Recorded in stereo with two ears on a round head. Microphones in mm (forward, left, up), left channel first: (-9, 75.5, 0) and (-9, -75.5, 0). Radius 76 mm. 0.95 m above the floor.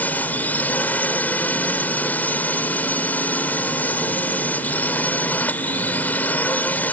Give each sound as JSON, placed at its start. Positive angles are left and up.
{"t": 0.0, "sound": "a drone", "side_deg": 10}